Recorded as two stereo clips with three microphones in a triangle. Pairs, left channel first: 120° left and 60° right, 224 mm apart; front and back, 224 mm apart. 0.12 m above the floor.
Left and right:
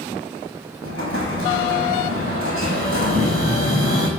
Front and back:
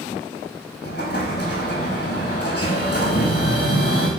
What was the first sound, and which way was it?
An explosion, 45° right.